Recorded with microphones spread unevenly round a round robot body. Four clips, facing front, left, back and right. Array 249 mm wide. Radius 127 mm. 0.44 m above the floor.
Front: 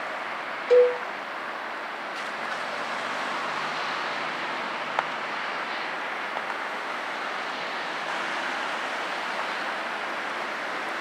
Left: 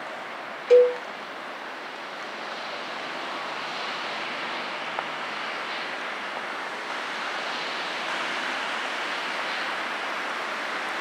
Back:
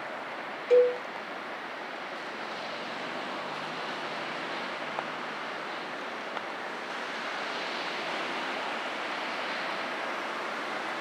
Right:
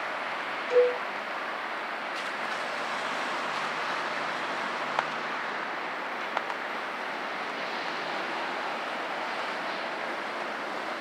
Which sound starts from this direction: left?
A cowbell, at 0.7 s.